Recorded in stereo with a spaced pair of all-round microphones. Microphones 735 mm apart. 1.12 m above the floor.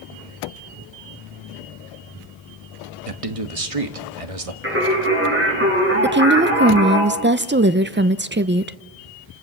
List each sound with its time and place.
3.1 s a man speaking: 50° right (ahead or behind), 1.6 m
4.6 s singing: 15° right (ahead or behind), 7.5 m
6.0 s a woman speaking: 15° right (ahead or behind), 0.7 m